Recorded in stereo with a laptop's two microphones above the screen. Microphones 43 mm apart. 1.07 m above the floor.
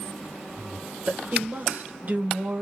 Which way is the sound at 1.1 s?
40° right (ahead or behind).